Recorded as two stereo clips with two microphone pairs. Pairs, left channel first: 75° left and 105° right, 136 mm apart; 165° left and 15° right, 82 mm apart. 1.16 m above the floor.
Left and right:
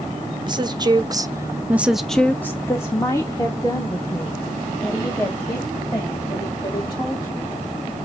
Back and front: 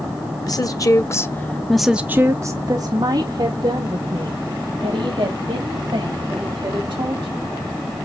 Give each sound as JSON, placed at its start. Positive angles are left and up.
{"t": 0.5, "sound": "a woman speaking", "azimuth_deg": -160, "distance_m": 1.2}